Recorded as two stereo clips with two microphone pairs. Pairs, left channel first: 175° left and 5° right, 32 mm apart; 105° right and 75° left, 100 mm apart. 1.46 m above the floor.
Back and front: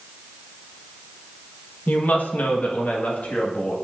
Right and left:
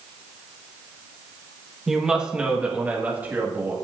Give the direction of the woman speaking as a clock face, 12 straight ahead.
7 o'clock.